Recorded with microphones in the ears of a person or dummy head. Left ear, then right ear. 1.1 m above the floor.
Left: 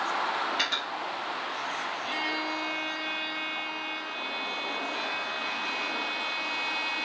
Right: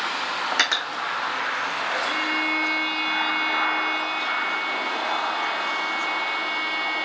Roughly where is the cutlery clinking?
Right.